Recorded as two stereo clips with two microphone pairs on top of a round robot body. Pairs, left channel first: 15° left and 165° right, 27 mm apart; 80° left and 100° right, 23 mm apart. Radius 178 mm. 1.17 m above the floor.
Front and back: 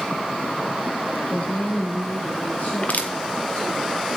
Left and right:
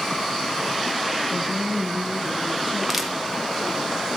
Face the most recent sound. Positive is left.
turn(degrees=-10)